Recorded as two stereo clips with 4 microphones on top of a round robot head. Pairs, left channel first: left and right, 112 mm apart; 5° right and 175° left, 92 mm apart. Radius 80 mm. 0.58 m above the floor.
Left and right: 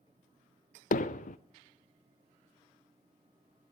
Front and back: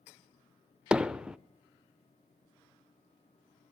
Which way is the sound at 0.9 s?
90° left.